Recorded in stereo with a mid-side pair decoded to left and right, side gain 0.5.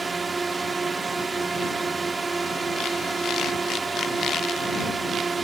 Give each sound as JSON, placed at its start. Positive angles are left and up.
{"t": 0.0, "sound": "a drone", "azimuth_deg": -30}